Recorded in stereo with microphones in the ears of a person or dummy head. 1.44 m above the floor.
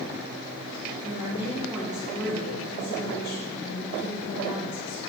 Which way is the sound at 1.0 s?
25° right (ahead or behind).